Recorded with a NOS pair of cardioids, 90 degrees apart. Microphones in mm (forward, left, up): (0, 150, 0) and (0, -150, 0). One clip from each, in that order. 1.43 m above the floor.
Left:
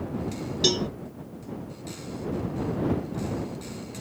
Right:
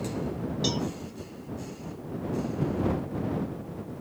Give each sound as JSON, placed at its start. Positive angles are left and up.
{"t": 0.6, "sound": "a cowbell", "azimuth_deg": 50}